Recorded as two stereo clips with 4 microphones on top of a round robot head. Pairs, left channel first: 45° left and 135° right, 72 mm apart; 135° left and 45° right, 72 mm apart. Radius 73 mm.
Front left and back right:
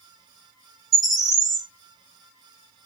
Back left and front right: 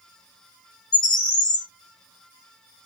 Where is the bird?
140° left, 1.8 m.